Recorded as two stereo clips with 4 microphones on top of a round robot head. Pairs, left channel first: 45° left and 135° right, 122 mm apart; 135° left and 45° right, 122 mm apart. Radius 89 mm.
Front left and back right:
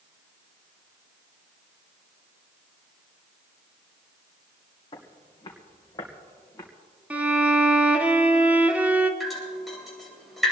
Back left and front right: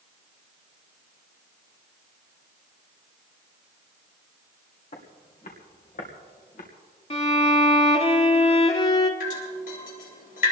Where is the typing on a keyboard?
I don't hear typing on a keyboard.